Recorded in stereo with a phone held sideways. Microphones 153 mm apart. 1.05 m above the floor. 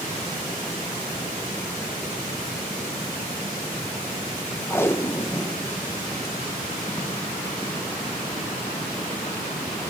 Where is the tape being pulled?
15° left (ahead or behind), 1.1 m.